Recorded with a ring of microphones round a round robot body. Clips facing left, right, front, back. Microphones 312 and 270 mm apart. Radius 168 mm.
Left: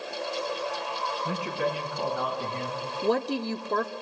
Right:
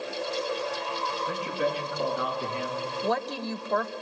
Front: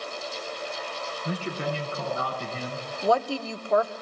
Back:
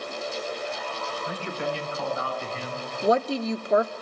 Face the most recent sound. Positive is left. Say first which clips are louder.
# left 6 dB, back 3 dB
turn(degrees=120)